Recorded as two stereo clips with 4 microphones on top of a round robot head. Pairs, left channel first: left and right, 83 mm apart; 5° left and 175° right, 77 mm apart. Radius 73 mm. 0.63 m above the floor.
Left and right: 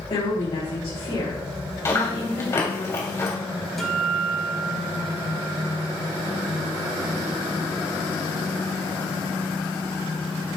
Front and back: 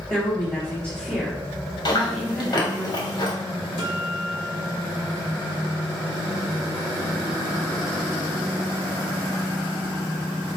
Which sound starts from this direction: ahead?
A guitar, at 3.8 s.